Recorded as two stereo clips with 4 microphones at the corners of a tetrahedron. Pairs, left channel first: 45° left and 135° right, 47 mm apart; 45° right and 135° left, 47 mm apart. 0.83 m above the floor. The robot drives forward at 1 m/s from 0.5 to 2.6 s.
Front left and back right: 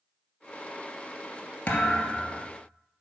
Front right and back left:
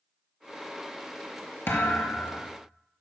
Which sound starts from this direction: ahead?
A thud, at 1.7 s.